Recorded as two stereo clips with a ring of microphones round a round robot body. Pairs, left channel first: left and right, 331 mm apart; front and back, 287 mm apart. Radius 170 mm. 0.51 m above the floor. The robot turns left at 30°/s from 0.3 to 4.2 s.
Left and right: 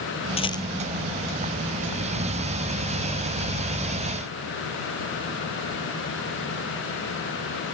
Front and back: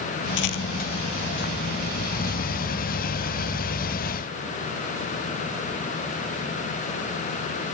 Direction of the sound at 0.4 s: 15° left.